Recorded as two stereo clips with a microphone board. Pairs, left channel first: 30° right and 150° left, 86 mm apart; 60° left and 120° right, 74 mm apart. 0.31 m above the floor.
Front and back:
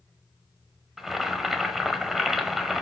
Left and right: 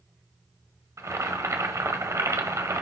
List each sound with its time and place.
1.0 s boiling: 125° right, 1.2 m